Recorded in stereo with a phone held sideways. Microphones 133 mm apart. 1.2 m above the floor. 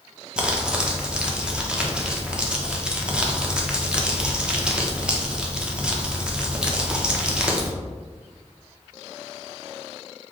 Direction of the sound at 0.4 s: 5° right (ahead or behind).